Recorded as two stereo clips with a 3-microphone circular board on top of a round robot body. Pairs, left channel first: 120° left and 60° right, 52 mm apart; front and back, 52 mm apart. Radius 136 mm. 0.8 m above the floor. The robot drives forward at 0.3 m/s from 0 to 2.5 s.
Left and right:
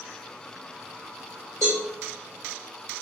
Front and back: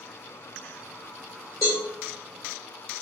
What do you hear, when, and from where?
1.6 s a cowbell: 70° right, 0.5 m; by 1.8 s 85° right, 0.5 m